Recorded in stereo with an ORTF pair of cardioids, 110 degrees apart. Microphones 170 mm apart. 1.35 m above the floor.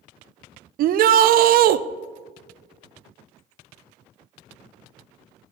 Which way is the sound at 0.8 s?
60° right.